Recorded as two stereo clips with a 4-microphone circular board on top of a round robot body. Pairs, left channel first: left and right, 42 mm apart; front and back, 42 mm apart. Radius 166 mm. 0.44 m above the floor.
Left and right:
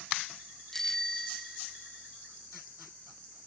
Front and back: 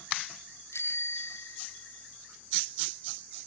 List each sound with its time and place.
0.7 s a bicycle bell: 10° left; by 2.0 s straight ahead